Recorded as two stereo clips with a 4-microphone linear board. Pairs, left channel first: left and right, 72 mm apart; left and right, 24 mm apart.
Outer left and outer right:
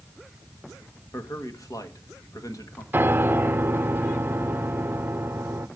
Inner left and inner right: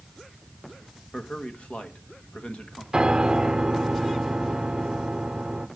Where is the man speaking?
55° left (ahead or behind), 1.8 m.